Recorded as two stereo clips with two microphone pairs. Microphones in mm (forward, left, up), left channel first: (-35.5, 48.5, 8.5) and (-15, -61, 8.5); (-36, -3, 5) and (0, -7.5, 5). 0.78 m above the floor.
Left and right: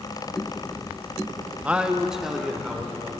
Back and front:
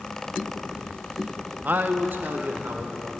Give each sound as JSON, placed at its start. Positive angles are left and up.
{"t": 1.6, "sound": "a man speaking", "azimuth_deg": -5, "distance_m": 0.7}